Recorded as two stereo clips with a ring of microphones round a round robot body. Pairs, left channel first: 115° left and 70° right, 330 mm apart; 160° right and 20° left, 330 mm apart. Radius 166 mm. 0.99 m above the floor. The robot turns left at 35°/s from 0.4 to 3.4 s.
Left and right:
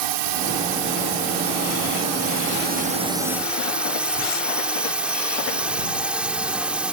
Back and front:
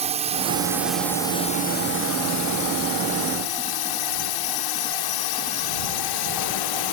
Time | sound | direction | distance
0.0 | a drone | 50° right | ?